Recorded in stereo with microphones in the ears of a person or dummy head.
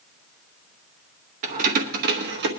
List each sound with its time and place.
1.4 s keys jangling: 50° right (ahead or behind), 1.2 m; by 2.5 s 65° right (ahead or behind), 1.2 m